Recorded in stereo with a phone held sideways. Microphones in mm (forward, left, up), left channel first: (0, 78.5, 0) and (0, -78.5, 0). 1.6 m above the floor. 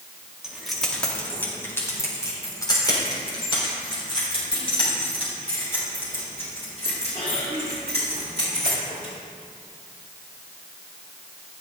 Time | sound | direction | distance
0.4 | keys jangling | 5° right (ahead or behind) | 2.0 m